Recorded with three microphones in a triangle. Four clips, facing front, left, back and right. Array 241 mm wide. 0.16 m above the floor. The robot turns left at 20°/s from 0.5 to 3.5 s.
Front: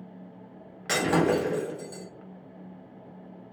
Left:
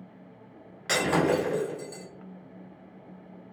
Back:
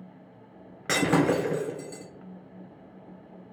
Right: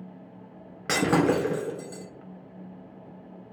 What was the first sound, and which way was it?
Breaking glass, 125° right.